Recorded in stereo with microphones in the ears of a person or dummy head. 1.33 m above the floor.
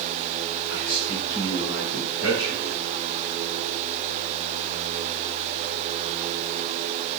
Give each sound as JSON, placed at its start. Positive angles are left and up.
{"t": 0.7, "sound": "a man speaking", "side_deg": 75, "distance_m": 3.5}